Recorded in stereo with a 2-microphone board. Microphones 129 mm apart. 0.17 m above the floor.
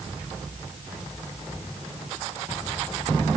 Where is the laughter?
I don't hear laughter.